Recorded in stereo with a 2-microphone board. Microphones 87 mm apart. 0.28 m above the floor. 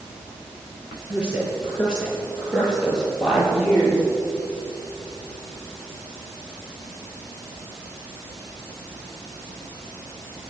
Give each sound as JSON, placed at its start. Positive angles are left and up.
{"t": 1.1, "sound": "a woman speaking", "side_deg": -15, "distance_m": 6.5}